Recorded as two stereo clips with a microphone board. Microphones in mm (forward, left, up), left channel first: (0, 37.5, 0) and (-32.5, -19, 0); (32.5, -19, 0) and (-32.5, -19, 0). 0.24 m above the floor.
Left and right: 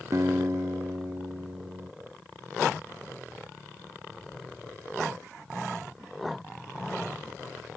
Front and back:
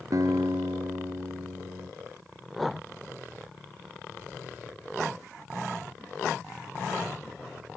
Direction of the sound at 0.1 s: 155° right.